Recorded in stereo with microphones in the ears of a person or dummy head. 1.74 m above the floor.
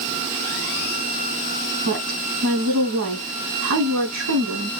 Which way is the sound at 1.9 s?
75° right (ahead or behind).